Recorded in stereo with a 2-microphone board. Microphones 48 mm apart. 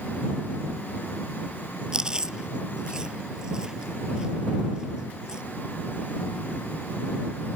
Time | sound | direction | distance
1.9 | chewing | 15° right (ahead or behind) | ?